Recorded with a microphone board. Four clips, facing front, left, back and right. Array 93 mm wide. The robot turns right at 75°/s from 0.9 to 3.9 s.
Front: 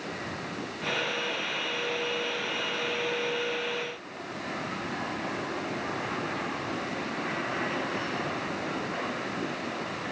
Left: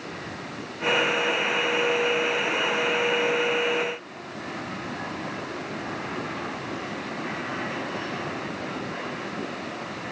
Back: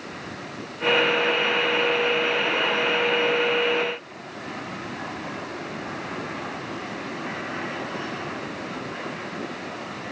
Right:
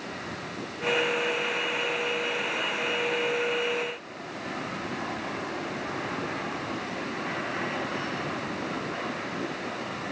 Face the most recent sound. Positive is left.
No sound to turn to.